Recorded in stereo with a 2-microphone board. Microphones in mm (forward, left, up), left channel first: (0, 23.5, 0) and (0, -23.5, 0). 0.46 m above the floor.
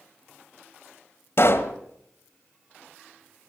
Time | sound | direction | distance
1.4 | a pop | 55° left (ahead or behind) | 1.3 m